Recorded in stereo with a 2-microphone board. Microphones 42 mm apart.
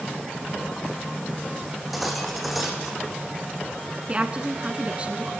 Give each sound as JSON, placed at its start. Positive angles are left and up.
{"t": 1.7, "sound": "cutlery clinking", "side_deg": 0, "distance_m": 4.0}
{"t": 4.1, "sound": "a woman speaking", "side_deg": -30, "distance_m": 1.3}